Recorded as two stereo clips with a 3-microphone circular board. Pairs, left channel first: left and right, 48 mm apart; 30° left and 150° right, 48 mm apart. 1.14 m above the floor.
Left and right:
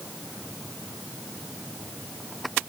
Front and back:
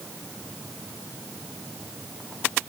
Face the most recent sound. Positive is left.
No sound to turn to.